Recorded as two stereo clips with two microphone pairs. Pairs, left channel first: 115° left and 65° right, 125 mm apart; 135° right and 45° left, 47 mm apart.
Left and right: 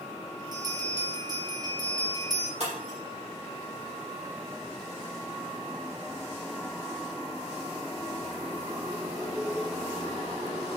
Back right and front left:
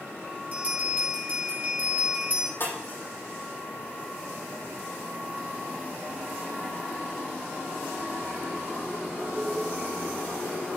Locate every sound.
0.5 s a bell: 10° right, 2.5 m
2.6 s breaking glass: 100° right, 7 m